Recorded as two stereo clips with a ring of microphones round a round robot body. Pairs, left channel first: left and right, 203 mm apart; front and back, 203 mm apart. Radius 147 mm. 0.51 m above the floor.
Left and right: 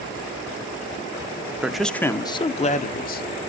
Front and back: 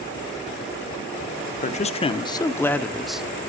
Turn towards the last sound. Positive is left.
turn(degrees=95)